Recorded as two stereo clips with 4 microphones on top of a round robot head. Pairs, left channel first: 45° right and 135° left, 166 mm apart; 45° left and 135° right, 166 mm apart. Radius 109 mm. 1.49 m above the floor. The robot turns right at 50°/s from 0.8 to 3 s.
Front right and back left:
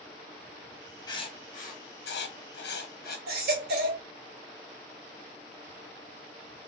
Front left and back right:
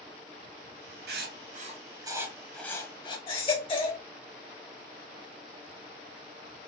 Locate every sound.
1.1 s writing: 115° right, 1.0 m; by 3.2 s 15° right, 1.0 m
3.3 s a baby crying: 105° left, 1.5 m